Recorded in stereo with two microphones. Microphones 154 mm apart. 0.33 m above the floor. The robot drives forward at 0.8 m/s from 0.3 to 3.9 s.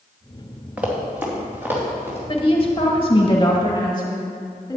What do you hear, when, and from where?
0.8 s running footsteps: 10° right (ahead or behind), 2.5 m; by 2.2 s 15° right (ahead or behind), 4.5 m
2.3 s a woman speaking: 35° left (ahead or behind), 1.5 m; by 4.8 s 30° left (ahead or behind), 1.8 m